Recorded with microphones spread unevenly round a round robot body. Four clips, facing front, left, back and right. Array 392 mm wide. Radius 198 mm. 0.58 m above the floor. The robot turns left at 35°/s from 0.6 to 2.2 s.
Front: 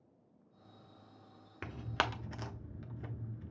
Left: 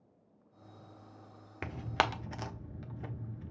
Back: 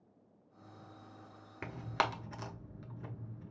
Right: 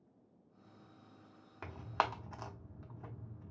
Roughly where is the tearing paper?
Left.